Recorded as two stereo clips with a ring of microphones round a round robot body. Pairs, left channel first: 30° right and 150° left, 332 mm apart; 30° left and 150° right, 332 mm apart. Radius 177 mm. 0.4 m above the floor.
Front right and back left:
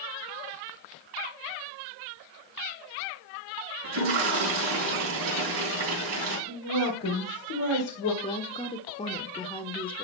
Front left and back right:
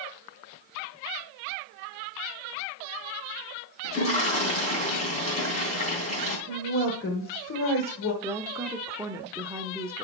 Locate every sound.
3.8 s a toilet flushing: 100° left, 3 m
6.5 s a woman speaking: 10° right, 2 m
8.2 s a woman speaking: 80° right, 0.8 m